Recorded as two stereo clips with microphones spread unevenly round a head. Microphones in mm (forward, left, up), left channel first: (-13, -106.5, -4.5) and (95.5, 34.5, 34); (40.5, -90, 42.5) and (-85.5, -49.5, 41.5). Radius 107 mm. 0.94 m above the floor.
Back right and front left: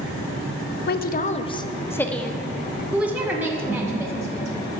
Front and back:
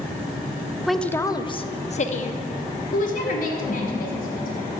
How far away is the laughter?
About 2.5 m.